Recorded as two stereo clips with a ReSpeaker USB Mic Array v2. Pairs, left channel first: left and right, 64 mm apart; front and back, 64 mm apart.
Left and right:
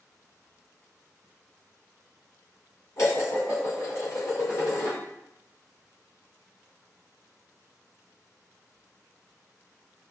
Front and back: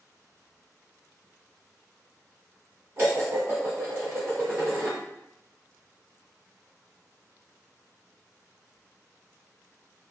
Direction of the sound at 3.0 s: 125° left.